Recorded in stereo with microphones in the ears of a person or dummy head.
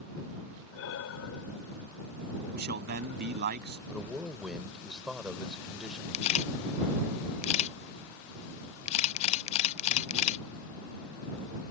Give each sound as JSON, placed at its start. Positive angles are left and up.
{"t": 0.7, "sound": "breathing", "side_deg": 85}
{"t": 2.5, "sound": "a man speaking", "side_deg": -55}
{"t": 3.9, "sound": "a man speaking", "side_deg": 0}
{"t": 6.1, "sound": "a camera shutter", "side_deg": 30}